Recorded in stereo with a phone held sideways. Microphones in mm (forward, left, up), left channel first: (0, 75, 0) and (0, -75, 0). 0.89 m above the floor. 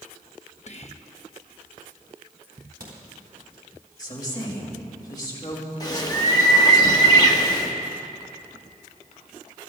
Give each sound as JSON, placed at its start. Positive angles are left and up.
{"t": 0.7, "sound": "whispering", "side_deg": 50, "distance_m": 1.2}
{"t": 2.4, "sound": "a crack", "side_deg": -75, "distance_m": 4.0}
{"t": 4.0, "sound": "a woman speaking", "side_deg": 25, "distance_m": 5.0}
{"t": 5.8, "sound": "a bird", "side_deg": 25, "distance_m": 1.4}